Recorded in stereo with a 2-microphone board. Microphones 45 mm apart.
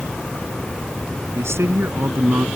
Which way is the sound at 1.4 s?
85° right.